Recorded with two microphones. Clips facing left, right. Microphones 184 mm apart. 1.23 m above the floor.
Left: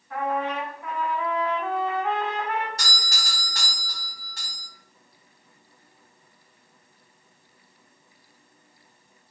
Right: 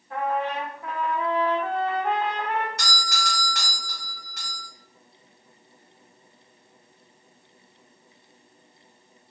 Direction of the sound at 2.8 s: 35° left (ahead or behind).